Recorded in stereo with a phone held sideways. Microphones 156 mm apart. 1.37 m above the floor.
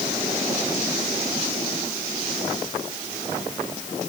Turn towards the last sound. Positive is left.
No sound to turn to.